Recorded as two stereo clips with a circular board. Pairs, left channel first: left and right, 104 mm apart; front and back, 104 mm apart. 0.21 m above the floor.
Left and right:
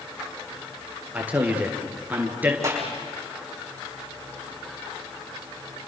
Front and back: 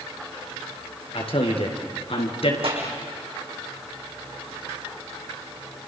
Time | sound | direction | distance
1.1 | a man speaking | 15° right | 4 m
2.6 | a clap | 150° right | 7.5 m